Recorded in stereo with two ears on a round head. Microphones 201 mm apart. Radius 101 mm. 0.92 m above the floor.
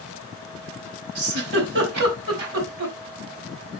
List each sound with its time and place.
1.1 s a giggle: 50° right (ahead or behind), 4 m